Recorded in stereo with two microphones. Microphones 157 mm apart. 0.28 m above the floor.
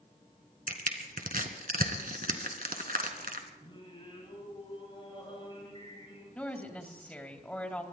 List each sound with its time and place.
0.7 s crushing: 70° right (ahead or behind), 1.7 m
3.6 s singing: 35° left (ahead or behind), 7.5 m
6.3 s a woman speaking: 10° left (ahead or behind), 1.7 m